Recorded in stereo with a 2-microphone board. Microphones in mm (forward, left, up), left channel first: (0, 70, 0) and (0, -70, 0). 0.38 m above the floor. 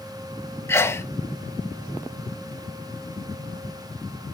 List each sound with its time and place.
0.7 s a sneeze: 15° left (ahead or behind), 0.9 m